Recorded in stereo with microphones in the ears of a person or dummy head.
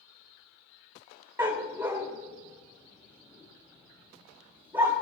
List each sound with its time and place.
1.4 s a dog barking: 15° right (ahead or behind), 2 m